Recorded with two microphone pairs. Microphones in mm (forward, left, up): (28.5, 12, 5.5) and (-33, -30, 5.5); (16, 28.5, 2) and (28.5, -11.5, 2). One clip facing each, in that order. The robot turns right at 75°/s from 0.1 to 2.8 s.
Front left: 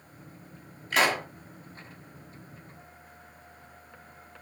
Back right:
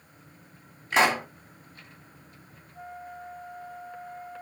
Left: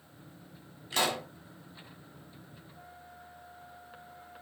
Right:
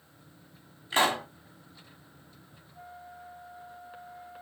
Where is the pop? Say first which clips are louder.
Back right 2 dB, right 5 dB; 100° right, 1.6 m; by 1.3 s 75° right, 1.6 m.